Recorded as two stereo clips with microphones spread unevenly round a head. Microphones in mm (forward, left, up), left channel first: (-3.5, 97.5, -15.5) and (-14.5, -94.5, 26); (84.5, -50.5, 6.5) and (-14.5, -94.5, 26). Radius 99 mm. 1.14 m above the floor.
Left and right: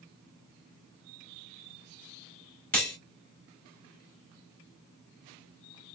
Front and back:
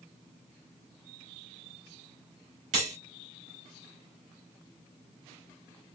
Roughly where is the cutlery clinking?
Behind.